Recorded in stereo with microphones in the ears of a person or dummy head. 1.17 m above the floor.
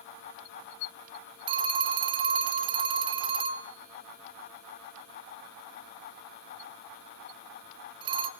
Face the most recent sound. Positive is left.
turn(degrees=-30)  # may be behind; listen again after turning